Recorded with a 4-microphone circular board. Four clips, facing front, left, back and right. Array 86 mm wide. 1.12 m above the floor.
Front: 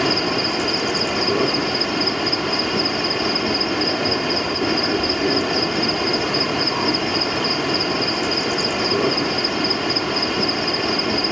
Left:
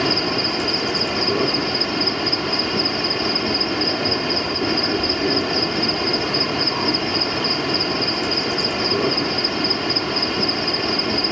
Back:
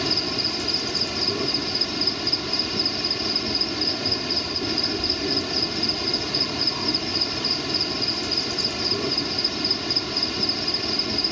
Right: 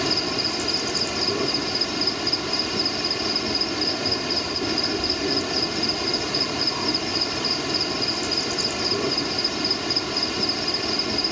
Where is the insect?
30° left.